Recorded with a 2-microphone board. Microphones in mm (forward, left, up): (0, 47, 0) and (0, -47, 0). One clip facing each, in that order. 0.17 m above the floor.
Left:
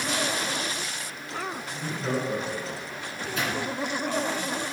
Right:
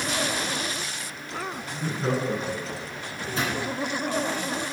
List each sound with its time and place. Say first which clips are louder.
1.7 s laughter: right 3 dB; 40° right (ahead or behind), 1.7 m; by 2.9 s 50° right (ahead or behind), 2.5 m
3.0 s a microwave: right 1 dB; 35° right (ahead or behind), 1.9 m